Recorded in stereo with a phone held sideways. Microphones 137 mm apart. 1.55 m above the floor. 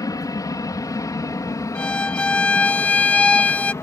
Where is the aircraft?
30° left (ahead or behind); by 3.8 s 20° left (ahead or behind).